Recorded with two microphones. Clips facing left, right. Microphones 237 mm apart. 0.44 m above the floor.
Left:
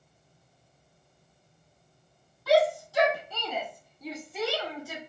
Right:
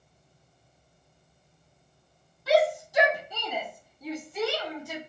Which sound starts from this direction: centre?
A shout, at 2.5 s.